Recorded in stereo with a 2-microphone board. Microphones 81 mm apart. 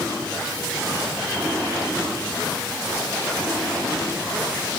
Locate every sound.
Only background noise.